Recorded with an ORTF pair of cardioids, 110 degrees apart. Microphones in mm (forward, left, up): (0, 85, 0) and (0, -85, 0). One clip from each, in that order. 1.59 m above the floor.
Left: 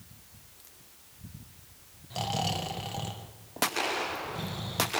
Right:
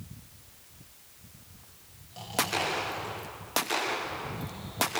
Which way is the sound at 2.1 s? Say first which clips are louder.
Right 1 dB; 65° left.